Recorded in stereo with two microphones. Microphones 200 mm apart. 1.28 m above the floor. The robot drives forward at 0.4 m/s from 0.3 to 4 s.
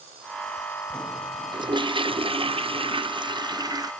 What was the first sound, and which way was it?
A toilet flushing, 20° right (ahead or behind).